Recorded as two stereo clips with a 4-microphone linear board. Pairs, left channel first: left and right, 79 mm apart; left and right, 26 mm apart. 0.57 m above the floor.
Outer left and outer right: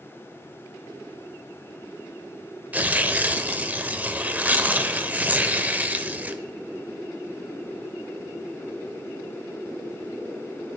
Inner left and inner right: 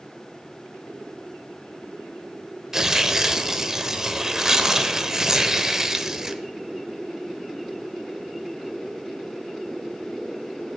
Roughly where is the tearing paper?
Right.